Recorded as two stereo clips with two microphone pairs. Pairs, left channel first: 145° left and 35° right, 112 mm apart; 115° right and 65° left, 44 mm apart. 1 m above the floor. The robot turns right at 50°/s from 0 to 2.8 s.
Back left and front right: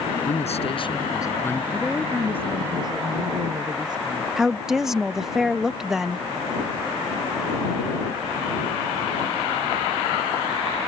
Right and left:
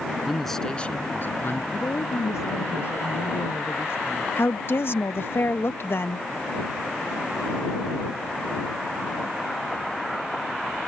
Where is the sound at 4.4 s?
120° right.